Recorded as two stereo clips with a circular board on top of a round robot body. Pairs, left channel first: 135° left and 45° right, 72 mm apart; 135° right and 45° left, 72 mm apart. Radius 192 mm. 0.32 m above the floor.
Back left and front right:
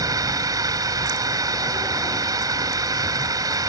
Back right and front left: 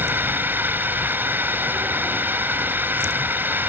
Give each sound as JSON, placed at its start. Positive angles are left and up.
{"t": 0.0, "sound": "a drone", "azimuth_deg": -15}